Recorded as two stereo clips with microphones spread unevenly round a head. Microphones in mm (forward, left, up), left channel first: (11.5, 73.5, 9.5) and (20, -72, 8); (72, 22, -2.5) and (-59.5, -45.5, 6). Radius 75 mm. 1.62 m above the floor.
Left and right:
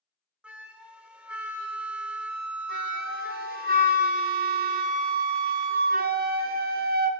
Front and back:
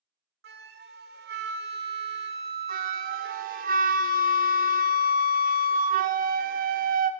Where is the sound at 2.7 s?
120° right, 0.6 m.